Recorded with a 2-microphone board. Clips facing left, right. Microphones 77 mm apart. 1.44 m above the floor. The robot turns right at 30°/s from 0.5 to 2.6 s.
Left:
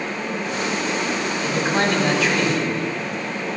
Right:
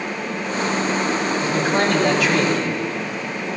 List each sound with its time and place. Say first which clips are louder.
1.4 s a man speaking: even; 120° right, 4 m; by 2.7 s 85° right, 4 m